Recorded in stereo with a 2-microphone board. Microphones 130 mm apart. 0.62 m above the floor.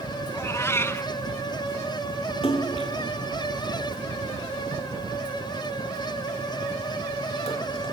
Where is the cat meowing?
20° left (ahead or behind), 0.6 m.